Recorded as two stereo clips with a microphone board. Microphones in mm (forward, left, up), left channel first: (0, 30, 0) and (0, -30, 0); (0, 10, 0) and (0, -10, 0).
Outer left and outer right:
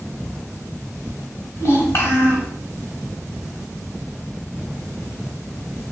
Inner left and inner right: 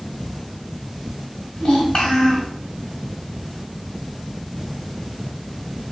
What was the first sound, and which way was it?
A child speaking, 55° left (ahead or behind).